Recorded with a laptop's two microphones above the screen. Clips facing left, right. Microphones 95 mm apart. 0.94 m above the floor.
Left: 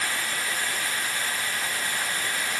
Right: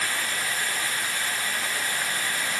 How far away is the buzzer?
No buzzer in this recording.